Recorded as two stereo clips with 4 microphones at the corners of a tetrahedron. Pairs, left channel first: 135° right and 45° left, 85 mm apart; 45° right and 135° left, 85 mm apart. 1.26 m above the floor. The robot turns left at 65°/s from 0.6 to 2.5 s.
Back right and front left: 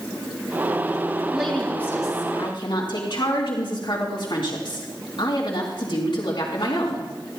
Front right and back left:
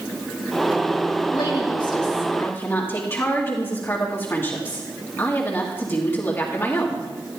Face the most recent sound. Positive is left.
turn(degrees=-110)